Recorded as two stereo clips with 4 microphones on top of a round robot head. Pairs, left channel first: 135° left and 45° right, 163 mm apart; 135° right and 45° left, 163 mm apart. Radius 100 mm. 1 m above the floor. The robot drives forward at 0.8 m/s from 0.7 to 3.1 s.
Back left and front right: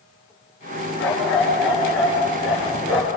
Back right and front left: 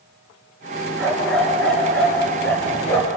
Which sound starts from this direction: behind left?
A dog barking, at 1.0 s.